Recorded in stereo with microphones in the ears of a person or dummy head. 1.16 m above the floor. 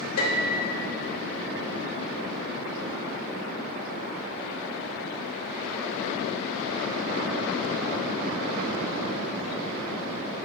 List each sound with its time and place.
0.2 s a piano: 80° left, 2 m